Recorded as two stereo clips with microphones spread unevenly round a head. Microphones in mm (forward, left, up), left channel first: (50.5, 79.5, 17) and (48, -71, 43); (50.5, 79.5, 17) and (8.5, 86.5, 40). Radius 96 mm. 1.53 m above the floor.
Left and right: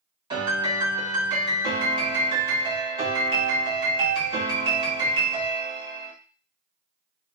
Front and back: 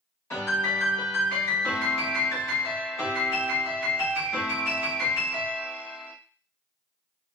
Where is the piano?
35° right, 1.8 m.